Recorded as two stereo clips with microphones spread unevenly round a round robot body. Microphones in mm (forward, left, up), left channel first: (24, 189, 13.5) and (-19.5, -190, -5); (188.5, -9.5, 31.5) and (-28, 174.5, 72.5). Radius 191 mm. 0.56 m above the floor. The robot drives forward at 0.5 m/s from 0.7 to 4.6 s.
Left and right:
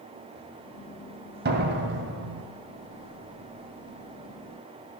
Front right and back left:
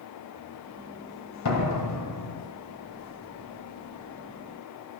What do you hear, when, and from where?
1.4 s a door slam: 35° right, 2 m; by 2.5 s 45° right, 1.7 m